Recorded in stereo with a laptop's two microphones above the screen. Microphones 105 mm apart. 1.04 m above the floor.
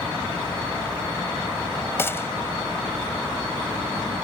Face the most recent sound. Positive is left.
turn(degrees=25)  # may be behind; listen again after turning